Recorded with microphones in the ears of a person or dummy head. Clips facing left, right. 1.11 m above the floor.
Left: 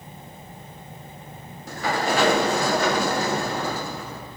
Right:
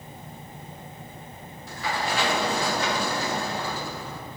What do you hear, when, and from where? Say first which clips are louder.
1.7 s a sliding door: left 5 dB; 40° left (ahead or behind), 0.6 m